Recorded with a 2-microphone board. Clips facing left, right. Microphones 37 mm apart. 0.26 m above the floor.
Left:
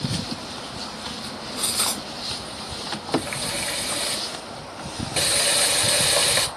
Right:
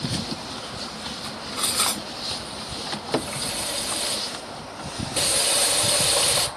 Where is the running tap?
55° left (ahead or behind), 3 m.